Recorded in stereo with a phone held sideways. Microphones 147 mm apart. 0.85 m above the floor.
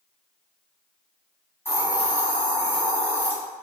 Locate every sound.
1.6 s a hiss: 15° left (ahead or behind), 1.4 m